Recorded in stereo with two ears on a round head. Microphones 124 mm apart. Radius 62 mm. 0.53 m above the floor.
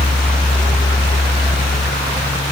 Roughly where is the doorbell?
I don't hear a doorbell.